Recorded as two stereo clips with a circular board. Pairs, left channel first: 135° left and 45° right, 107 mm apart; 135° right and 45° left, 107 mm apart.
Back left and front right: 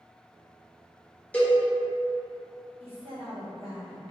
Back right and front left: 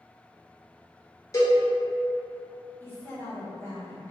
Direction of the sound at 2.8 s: 70° right.